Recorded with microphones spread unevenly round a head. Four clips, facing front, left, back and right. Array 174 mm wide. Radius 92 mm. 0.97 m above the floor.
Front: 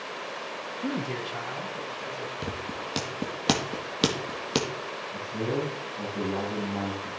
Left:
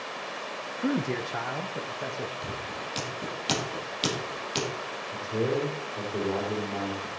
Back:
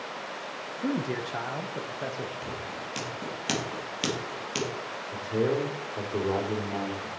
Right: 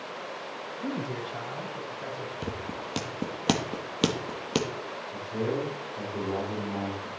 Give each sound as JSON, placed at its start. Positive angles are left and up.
{"t": 0.8, "sound": "a man speaking", "azimuth_deg": 90, "distance_m": 0.8}
{"t": 2.4, "sound": "scissors", "azimuth_deg": -50, "distance_m": 1.6}
{"t": 5.1, "sound": "a man speaking", "azimuth_deg": 155, "distance_m": 3.5}